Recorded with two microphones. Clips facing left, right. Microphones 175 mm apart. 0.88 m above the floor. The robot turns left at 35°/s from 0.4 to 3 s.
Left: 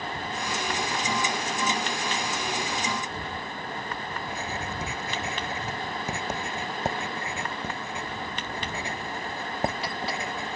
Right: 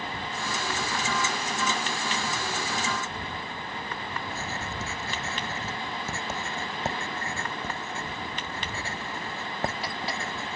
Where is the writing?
15° left (ahead or behind).